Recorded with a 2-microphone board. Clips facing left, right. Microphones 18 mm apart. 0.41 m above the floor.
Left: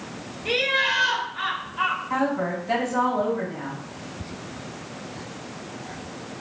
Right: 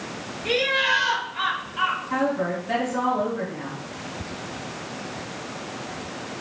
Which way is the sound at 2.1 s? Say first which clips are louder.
Even; centre (ahead or behind).